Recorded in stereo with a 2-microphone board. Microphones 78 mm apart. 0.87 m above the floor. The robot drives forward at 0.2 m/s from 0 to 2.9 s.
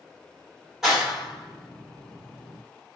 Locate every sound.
0.8 s a clap: 5° right (ahead or behind), 1.5 m